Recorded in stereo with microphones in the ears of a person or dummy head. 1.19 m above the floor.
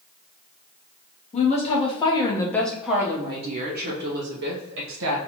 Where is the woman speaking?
35° left (ahead or behind), 1.1 m; by 5.2 s 75° right (ahead or behind), 1.1 m.